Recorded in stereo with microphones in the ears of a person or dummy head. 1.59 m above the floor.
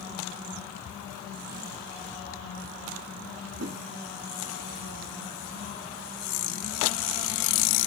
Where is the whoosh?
65° right (ahead or behind), 0.7 m.